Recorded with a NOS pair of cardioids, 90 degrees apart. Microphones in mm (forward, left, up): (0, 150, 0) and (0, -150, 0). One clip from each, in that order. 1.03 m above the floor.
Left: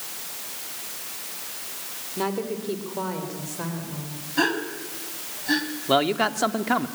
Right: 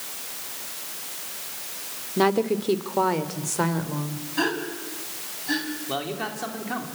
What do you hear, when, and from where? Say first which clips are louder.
2.2 s a woman speaking: right 7 dB; 45° right, 2.5 m; by 4.3 s 70° right, 3.5 m
4.4 s a gasp: left 2 dB; 15° left, 3.5 m
5.9 s a man speaking: left 11 dB; 60° left, 2.5 m